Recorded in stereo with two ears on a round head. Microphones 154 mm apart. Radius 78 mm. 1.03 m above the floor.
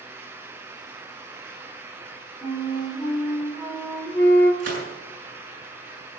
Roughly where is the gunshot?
Right.